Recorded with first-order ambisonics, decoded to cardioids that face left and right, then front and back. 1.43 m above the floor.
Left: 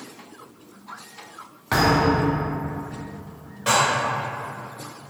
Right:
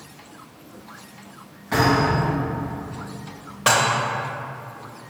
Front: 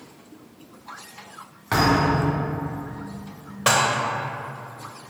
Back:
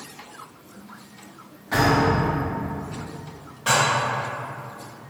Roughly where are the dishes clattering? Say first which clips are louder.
Right 1 dB, front 1 dB; ahead right.